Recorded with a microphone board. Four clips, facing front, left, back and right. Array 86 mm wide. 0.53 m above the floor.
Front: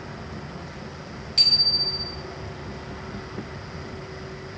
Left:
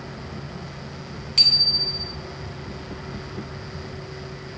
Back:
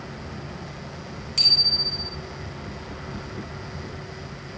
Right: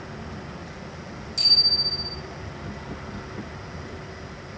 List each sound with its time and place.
1.4 s a bicycle bell: 100° left, 3.5 m